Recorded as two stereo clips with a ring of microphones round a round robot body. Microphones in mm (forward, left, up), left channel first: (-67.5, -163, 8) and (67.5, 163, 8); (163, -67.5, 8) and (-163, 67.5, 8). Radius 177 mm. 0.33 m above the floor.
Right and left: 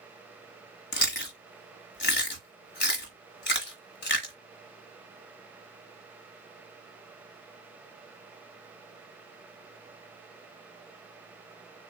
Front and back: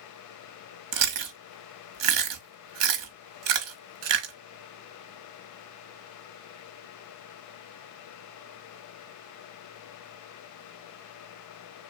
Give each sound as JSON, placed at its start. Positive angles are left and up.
{"t": 0.9, "sound": "chewing", "azimuth_deg": -175, "distance_m": 1.2}